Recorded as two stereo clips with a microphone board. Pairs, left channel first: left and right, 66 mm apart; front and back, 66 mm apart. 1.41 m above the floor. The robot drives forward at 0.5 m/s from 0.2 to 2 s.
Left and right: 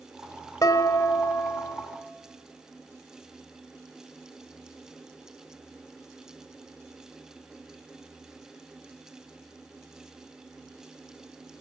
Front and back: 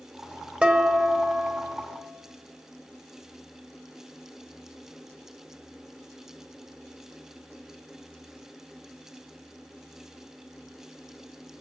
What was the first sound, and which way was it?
Dishes clattering, 110° left.